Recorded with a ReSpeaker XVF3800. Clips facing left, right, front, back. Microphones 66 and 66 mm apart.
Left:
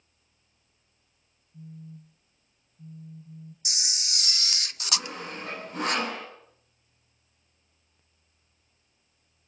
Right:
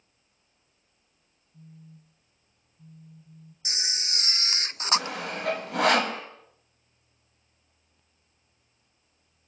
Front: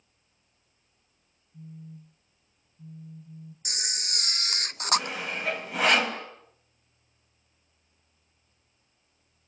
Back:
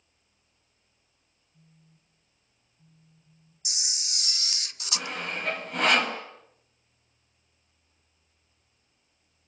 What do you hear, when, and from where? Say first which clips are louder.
1.5 s a phone buzzing: left 6 dB, front 17 dB; 25° left, 0.6 m
3.6 s a camera shutter: right 4 dB, front 5 dB; 35° right, 0.6 m
5.0 s sawing: right 5 dB, front 2 dB; 85° right, 4 m